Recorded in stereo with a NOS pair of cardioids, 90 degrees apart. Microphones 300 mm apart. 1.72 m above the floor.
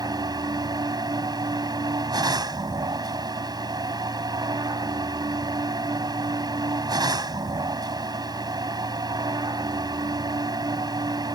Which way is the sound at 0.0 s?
15° right.